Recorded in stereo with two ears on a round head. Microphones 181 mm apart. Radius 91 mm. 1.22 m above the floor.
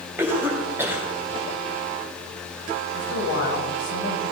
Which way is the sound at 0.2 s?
10° right (ahead or behind).